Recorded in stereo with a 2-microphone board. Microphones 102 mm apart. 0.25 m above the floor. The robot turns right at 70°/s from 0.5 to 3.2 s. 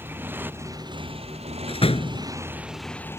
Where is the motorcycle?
20° right (ahead or behind); by 3.2 s 25° left (ahead or behind).